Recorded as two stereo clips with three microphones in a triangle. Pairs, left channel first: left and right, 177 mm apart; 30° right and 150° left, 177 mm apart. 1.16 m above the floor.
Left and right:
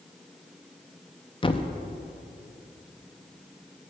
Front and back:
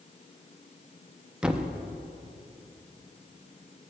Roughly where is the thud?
Left.